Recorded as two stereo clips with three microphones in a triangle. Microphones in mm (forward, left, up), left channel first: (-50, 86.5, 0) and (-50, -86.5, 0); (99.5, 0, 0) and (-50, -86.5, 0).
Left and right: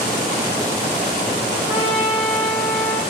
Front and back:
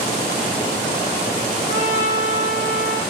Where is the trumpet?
10° right, 8 m.